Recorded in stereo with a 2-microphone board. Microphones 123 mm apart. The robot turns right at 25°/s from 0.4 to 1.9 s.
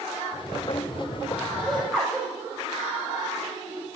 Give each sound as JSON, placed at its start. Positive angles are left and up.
{"t": 1.6, "sound": "laughter", "side_deg": 5, "distance_m": 4.0}